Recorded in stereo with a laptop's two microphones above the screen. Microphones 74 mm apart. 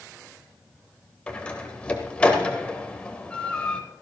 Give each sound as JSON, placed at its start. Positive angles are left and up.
{"t": 1.3, "sound": "a door slam", "side_deg": 15, "distance_m": 3.0}